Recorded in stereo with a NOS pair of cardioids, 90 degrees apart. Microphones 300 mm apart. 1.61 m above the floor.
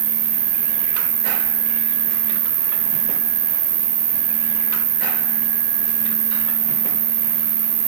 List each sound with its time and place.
0.0 s an insect: 60° right, 5 m